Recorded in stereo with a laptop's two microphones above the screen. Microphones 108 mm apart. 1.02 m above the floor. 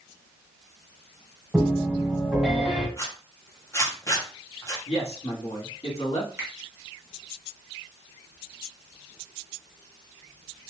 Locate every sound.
1.5 s a piano: centre (ahead or behind), 2 m
3.0 s a zipper: 25° left (ahead or behind), 0.7 m
4.9 s a man speaking: 70° left (ahead or behind), 1.7 m
6.4 s a finger snap: 25° right (ahead or behind), 1.0 m